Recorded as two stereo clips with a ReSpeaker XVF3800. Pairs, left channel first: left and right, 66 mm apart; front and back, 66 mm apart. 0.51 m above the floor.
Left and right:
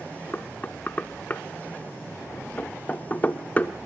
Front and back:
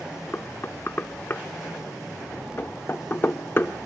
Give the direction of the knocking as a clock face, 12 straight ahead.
11 o'clock.